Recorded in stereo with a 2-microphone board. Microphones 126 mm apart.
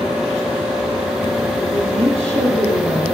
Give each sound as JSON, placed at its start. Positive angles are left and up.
{"t": 1.7, "sound": "a woman speaking", "side_deg": -55, "distance_m": 8.5}